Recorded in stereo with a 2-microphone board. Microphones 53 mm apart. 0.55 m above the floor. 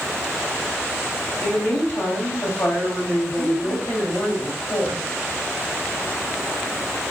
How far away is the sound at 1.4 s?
About 2.5 m.